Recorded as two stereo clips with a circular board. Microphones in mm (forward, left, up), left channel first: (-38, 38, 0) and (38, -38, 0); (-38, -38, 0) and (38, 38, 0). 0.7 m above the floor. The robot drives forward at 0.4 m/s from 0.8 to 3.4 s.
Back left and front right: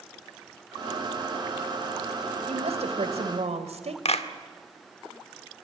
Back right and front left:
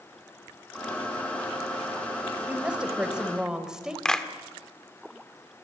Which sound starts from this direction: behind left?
A clap, at 4.0 s.